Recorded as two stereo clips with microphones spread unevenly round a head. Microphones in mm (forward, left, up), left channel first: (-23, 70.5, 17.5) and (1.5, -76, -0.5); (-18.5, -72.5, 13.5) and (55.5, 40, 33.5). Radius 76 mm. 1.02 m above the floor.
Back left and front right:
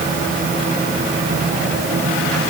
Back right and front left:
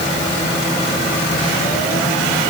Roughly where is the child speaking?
I don't hear a child speaking.